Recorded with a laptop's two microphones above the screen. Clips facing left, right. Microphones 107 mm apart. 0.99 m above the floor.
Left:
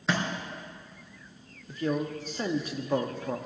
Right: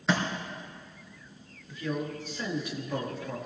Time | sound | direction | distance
0.1 | a thud | centre (ahead or behind) | 3 m
1.7 | a man speaking | 40° left (ahead or behind) | 1.4 m